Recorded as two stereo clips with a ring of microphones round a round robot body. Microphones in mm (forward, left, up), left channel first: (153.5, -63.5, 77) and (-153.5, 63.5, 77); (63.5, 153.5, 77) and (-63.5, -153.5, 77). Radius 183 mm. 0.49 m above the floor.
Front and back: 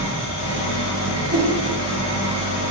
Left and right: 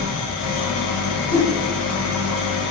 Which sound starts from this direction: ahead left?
An engine running, at 0.0 s.